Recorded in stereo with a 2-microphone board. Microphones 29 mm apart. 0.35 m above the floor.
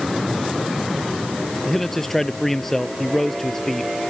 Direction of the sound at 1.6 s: 15° left (ahead or behind).